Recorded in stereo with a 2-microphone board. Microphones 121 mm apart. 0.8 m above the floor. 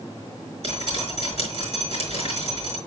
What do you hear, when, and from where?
0.6 s dripping: 60° right (ahead or behind), 5.5 m